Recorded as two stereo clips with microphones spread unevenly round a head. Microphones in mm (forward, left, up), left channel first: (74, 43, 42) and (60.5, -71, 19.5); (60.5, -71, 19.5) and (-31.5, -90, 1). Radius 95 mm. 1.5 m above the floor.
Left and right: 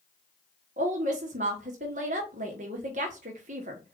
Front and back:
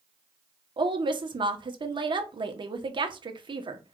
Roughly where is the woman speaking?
Behind right.